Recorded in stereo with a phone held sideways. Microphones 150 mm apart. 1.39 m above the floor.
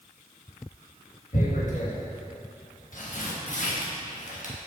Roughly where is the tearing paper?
Left.